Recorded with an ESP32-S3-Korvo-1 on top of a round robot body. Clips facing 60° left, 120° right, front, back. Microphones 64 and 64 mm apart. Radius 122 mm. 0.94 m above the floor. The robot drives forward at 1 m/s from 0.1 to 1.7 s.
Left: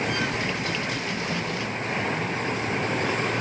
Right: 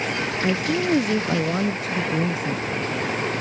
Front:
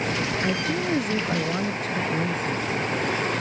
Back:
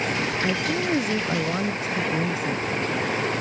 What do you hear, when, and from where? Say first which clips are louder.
0.4 s a woman speaking: right 6 dB, back 1 dB; 95° right; by 2.9 s 100° right